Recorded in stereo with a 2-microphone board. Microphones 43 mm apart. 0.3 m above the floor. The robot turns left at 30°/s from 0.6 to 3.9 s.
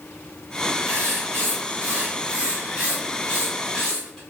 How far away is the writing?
About 1.5 m.